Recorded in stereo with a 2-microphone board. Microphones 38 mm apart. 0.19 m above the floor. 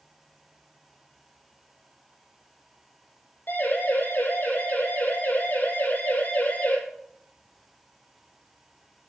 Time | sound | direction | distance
3.5 | a siren | 55° left (ahead or behind) | 7 m